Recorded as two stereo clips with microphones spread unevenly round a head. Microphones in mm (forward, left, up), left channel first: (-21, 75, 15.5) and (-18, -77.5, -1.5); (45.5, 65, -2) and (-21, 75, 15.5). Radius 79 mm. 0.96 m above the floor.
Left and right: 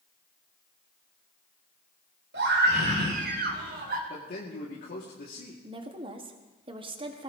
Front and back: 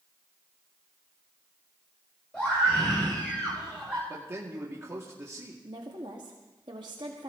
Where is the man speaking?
115° left, 2.5 m.